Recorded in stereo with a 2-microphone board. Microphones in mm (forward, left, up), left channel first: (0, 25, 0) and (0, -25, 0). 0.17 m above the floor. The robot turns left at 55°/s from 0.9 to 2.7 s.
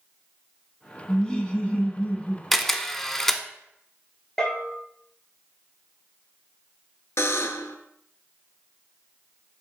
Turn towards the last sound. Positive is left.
turn(degrees=70)  # may be behind; listen again after turning